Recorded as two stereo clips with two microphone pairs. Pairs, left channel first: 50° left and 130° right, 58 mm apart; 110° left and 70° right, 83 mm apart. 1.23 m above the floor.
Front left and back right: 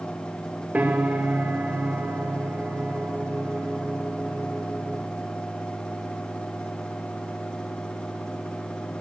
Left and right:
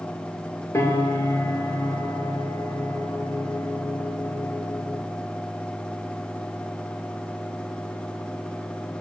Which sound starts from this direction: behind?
A piano, at 0.7 s.